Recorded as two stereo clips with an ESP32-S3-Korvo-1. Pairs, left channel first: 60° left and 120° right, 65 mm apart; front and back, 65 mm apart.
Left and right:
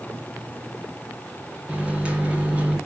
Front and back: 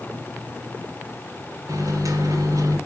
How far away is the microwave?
About 3 m.